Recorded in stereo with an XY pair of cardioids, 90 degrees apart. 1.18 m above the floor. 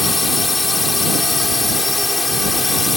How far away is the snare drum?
No snare drum in this recording.